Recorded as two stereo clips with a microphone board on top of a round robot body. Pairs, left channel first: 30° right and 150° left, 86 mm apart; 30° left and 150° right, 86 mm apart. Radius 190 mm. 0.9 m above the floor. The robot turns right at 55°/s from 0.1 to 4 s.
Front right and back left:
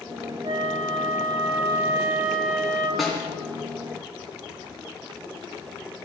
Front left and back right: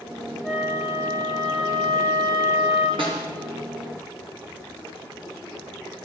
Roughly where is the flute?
Behind left.